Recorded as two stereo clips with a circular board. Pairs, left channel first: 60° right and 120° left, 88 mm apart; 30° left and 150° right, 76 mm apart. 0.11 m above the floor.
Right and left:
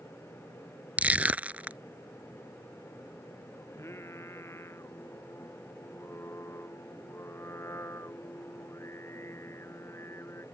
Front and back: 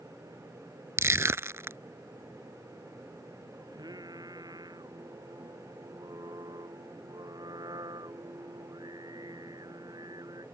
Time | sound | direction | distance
1.0 | crushing | 175° right | ?
3.7 | singing | 120° right | ?